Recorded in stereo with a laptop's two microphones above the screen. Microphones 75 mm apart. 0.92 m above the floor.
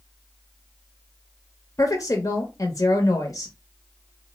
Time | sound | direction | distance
1.8 | a woman speaking | 45° left (ahead or behind) | 0.8 m